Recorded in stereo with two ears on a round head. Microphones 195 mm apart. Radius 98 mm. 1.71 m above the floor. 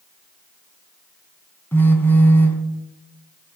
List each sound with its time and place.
1.7 s a phone buzzing: 10° left (ahead or behind), 2 m